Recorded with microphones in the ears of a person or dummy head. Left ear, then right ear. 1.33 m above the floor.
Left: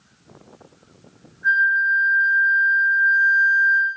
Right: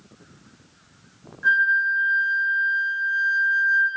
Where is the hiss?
I don't hear a hiss.